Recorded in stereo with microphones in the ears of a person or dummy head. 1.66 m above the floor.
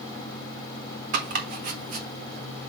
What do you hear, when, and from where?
1.1 s chopping: 50° right (ahead or behind), 1.5 m